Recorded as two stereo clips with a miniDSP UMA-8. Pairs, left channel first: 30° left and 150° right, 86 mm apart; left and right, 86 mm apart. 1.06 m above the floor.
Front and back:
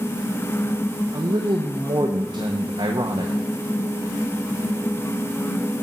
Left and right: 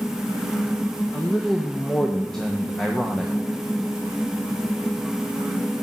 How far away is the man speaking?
About 0.9 m.